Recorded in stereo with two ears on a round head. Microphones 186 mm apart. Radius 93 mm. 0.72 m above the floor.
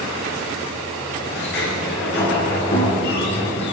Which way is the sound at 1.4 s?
55° left (ahead or behind).